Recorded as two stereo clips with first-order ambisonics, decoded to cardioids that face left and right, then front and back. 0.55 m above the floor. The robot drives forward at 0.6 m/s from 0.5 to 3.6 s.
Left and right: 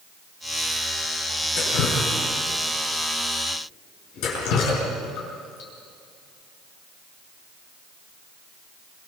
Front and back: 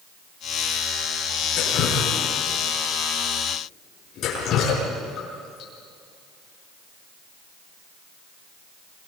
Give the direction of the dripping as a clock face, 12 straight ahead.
10 o'clock.